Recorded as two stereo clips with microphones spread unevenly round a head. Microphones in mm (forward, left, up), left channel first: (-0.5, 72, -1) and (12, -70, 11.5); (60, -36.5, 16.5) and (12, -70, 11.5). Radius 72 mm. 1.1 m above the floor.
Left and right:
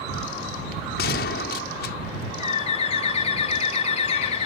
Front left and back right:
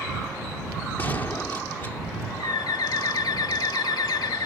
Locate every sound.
1.0 s a gunshot: 110° left
2.4 s a bird: 50° left